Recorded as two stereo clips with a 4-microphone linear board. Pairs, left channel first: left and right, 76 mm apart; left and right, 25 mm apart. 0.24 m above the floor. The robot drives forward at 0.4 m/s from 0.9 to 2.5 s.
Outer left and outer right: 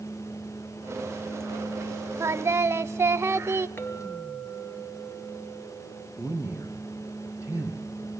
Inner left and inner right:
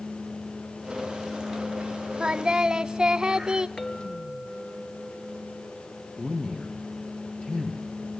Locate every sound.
2.2 s singing: 40° right (ahead or behind), 0.6 m; by 3.7 s 35° right (ahead or behind), 0.6 m
3.8 s a clink: 30° left (ahead or behind), 2 m
6.2 s a man speaking: 45° left (ahead or behind), 3 m